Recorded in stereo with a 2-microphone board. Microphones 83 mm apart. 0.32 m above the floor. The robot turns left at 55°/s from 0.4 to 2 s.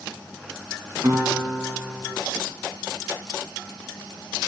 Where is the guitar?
135° right, 3 m; by 2.1 s 170° left, 3 m.